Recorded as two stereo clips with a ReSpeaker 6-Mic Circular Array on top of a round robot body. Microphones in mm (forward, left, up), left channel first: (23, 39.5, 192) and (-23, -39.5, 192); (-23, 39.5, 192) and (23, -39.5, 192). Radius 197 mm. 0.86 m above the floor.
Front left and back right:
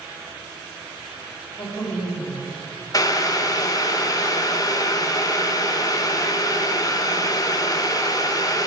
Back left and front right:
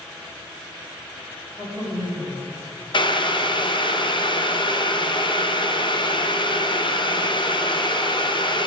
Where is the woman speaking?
80° left, 3 m.